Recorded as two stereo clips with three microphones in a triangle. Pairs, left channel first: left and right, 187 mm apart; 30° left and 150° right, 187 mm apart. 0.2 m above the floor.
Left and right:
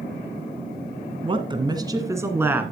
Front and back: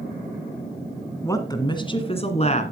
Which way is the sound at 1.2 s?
40° right.